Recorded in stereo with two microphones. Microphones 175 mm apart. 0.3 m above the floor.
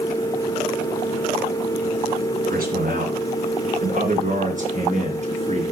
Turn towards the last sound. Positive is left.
turn(degrees=-40)  # may be behind; listen again after turning